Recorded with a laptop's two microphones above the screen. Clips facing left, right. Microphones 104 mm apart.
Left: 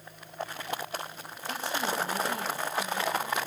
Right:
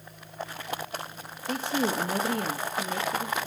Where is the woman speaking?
50° right (ahead or behind), 1.4 m; by 3.4 s 75° right (ahead or behind), 2.5 m.